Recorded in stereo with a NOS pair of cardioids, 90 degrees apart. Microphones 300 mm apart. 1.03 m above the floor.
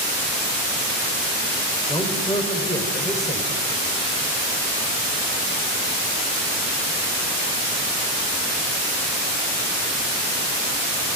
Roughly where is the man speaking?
Ahead.